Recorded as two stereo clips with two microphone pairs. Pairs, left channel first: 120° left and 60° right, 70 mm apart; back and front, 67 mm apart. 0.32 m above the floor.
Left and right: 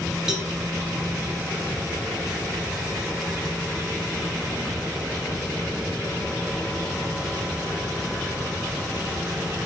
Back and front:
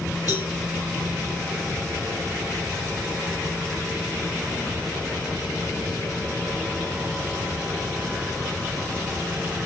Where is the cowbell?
145° right, 0.9 m.